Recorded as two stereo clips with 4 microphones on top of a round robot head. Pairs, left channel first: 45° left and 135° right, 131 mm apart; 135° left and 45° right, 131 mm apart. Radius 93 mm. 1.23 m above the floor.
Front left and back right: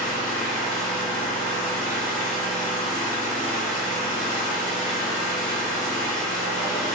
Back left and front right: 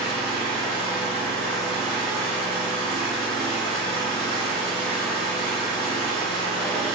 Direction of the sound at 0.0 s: 65° left.